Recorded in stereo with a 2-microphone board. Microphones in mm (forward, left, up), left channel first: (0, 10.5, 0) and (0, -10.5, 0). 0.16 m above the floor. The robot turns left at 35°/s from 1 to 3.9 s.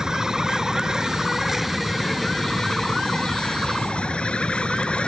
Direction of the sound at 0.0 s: 155° right.